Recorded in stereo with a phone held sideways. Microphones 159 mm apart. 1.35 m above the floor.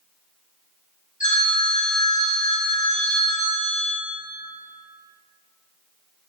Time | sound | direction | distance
1.2 | a phone ringing | 55° left (ahead or behind) | 2.0 m